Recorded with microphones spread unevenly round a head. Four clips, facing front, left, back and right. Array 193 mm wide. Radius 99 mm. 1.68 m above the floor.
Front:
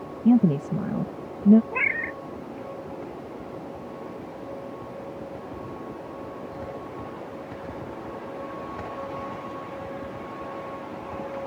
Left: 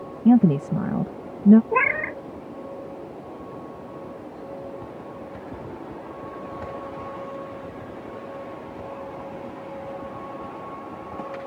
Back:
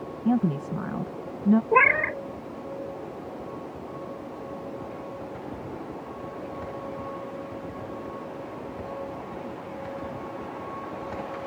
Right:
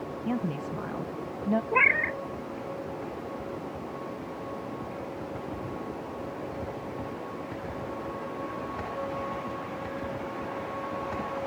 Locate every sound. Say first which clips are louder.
0.2 s a woman speaking: left 15 dB, front 5 dB; 70° left
1.7 s a cat meowing: left 3 dB, back 9 dB; 160° left